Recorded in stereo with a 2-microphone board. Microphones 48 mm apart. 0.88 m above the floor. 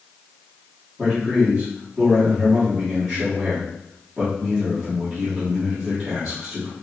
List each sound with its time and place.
1.0 s a man speaking: 15° right (ahead or behind), 2 m